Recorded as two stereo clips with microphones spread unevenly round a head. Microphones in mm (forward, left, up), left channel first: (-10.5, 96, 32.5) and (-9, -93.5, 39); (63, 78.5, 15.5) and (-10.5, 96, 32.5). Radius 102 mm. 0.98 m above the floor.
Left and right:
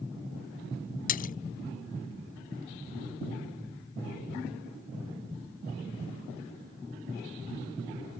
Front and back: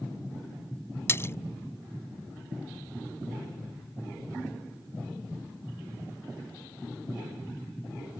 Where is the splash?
45° left.